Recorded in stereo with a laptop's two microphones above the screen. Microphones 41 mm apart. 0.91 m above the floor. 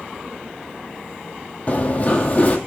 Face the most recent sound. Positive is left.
turn(degrees=35)  # may be behind; listen again after turning